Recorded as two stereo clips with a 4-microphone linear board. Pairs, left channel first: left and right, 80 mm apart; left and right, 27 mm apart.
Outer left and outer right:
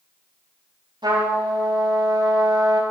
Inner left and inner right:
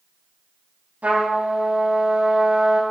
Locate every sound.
1.0 s a trumpet: 75° right (ahead or behind), 8 m